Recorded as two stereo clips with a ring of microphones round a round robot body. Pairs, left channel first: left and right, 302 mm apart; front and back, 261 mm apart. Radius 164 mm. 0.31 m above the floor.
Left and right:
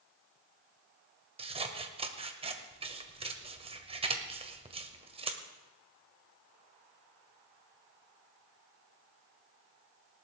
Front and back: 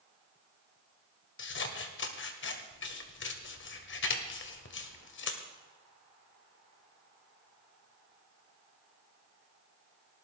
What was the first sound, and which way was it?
Scissors, 25° right.